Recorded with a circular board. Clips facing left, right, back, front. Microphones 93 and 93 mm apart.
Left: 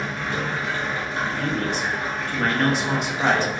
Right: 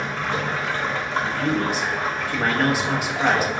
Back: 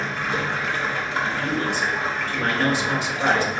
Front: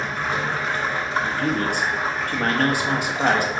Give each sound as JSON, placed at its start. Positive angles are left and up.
{"t": 0.0, "sound": "running water", "azimuth_deg": -65, "distance_m": 1.3}
{"t": 1.2, "sound": "a man speaking", "azimuth_deg": -5, "distance_m": 0.9}